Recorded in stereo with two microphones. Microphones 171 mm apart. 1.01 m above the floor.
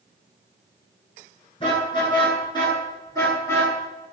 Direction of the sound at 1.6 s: 30° left (ahead or behind).